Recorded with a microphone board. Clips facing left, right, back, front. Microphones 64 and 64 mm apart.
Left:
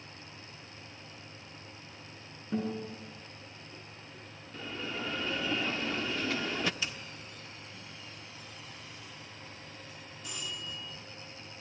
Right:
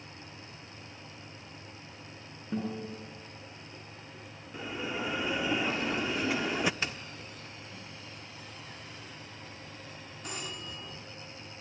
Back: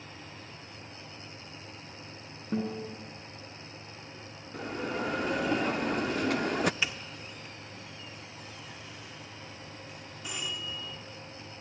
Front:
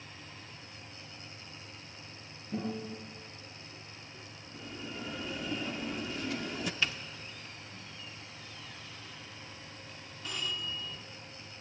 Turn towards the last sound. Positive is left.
turn(degrees=-105)